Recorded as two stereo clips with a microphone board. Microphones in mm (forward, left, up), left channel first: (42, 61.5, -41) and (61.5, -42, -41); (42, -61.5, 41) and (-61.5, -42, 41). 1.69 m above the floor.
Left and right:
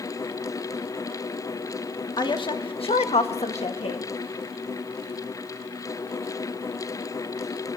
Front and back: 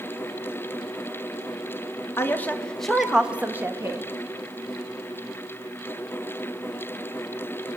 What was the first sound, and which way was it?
A woman speaking, 55° left.